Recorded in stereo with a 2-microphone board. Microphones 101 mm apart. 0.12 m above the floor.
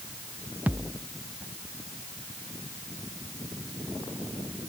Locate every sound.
0.7 s a thud: 15° right (ahead or behind)